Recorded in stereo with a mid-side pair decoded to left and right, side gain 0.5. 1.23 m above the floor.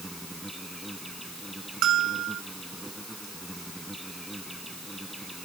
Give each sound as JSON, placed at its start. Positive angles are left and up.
{"t": 0.0, "sound": "an insect", "azimuth_deg": 0}
{"t": 1.8, "sound": "a bell", "azimuth_deg": -65}